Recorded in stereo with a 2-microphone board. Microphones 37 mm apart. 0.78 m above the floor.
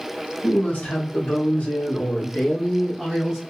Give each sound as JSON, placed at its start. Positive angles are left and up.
{"t": 0.4, "sound": "a woman speaking", "side_deg": 65, "distance_m": 1.5}